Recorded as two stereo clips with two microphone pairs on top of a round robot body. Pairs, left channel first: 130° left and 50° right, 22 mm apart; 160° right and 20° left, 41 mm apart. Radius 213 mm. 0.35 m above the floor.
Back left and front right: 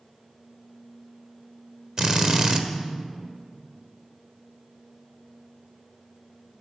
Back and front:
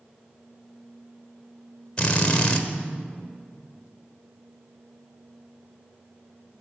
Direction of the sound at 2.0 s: 95° right.